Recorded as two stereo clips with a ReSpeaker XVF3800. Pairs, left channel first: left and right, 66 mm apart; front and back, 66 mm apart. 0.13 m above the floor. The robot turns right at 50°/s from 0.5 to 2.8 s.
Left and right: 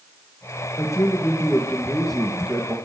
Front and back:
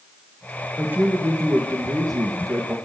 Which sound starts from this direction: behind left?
A man speaking, at 0.8 s.